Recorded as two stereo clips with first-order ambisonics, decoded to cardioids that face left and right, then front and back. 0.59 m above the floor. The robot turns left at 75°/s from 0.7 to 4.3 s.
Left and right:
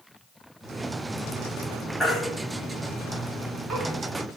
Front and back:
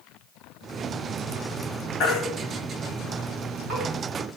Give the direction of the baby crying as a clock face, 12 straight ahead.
12 o'clock.